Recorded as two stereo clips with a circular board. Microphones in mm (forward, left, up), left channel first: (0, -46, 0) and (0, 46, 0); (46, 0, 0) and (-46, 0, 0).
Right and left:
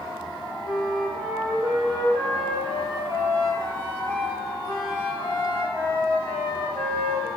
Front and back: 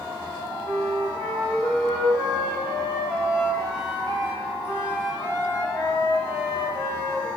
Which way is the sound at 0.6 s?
65° left.